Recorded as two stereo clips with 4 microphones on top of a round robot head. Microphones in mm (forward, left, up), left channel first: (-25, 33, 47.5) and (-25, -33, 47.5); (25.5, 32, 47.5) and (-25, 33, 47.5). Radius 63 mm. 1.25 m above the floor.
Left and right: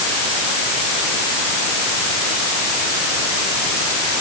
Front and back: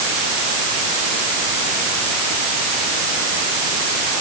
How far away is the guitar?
No guitar in this recording.